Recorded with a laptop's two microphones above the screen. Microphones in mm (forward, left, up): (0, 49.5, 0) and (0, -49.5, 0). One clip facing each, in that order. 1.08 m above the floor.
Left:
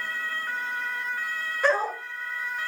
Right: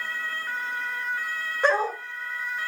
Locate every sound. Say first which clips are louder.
1.6 s a dog barking: right 1 dB; 25° right (ahead or behind), 1.2 m